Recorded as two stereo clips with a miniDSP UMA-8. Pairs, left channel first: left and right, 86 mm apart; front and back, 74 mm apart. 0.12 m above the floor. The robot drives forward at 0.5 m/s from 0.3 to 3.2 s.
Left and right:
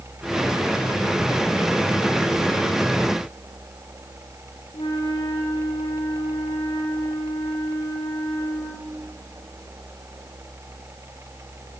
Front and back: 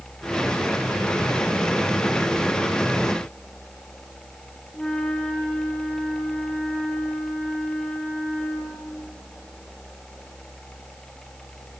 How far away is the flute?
About 7.5 m.